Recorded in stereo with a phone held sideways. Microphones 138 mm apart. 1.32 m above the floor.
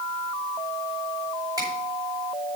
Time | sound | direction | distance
1.6 | a finger snap | 25° right (ahead or behind) | 6 m